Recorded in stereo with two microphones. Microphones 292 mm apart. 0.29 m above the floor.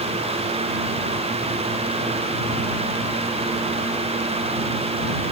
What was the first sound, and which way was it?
Only background noise.